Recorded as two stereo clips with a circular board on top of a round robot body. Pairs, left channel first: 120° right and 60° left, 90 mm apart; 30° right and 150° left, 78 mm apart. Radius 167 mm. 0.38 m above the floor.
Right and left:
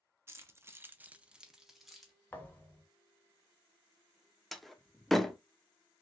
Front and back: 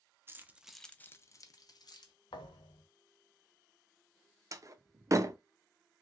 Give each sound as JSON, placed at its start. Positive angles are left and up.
{"t": 0.3, "sound": "keys jangling", "azimuth_deg": 110, "distance_m": 0.8}
{"t": 2.3, "sound": "a thud", "azimuth_deg": -45, "distance_m": 0.7}
{"t": 4.5, "sound": "a door slam", "azimuth_deg": 150, "distance_m": 0.6}